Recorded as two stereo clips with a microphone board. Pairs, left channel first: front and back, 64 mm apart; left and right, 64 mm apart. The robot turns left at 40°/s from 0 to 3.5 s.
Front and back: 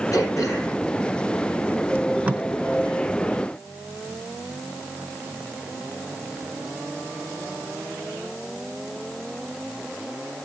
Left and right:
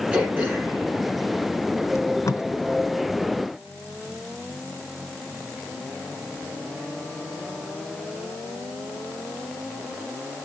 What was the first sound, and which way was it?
Throat clearing, 20° right.